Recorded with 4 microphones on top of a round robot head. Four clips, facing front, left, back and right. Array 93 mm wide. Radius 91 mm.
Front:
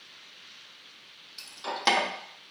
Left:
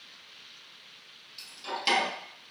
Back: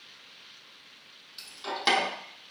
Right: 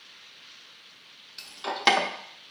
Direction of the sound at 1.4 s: 75° right.